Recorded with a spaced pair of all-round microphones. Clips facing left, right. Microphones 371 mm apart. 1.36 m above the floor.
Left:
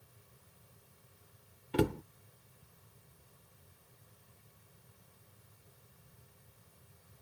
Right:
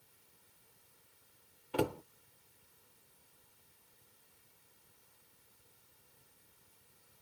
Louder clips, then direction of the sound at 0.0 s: Left 6 dB; 85° left.